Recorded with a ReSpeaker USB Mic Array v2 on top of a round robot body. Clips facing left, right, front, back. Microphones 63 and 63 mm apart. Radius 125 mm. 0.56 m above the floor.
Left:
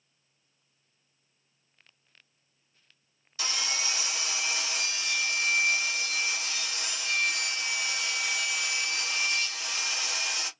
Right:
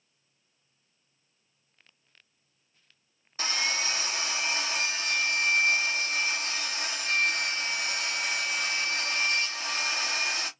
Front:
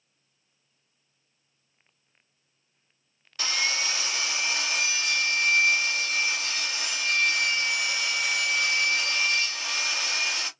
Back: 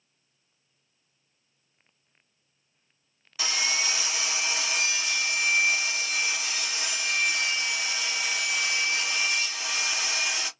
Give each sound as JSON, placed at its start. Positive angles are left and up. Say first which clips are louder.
{"t": 3.4, "sound": "sawing", "louder": "right 3 dB, even", "azimuth_deg": -105, "distance_m": 1.5}